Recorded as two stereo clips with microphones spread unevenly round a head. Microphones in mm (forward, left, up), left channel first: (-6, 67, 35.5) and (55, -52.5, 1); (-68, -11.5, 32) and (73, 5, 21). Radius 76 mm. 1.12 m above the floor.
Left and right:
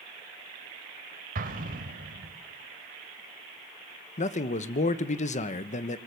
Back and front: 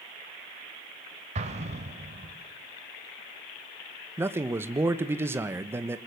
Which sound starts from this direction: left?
A man speaking, at 4.2 s.